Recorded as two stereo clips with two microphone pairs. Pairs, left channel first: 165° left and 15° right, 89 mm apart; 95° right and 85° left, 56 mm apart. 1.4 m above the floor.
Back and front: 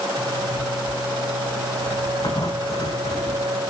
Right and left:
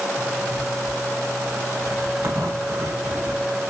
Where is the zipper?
115° left, 9.5 m.